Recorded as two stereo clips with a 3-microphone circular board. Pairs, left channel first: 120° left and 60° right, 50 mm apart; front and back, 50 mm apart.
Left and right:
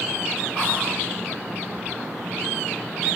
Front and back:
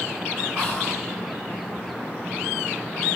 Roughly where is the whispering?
Right.